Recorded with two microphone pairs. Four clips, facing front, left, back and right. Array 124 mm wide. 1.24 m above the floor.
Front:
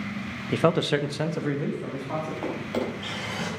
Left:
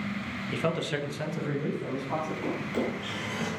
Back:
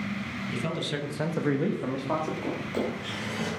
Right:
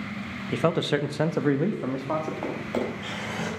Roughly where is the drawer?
Ahead right.